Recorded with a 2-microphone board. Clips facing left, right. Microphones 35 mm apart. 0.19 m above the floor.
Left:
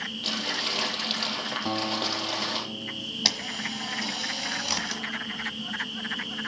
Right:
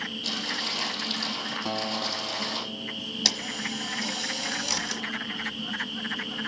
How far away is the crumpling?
About 3.5 m.